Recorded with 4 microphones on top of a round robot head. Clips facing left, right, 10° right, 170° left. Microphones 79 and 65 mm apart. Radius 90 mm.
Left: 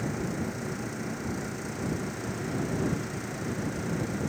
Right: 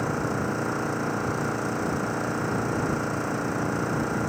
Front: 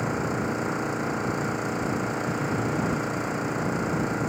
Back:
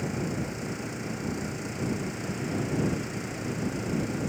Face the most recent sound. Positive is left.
turn(degrees=-55)